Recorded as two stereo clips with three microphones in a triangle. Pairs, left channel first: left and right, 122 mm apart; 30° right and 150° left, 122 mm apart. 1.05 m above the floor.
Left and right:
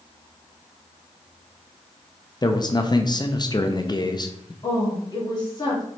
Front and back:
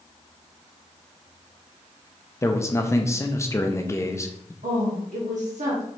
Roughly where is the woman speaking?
Behind left.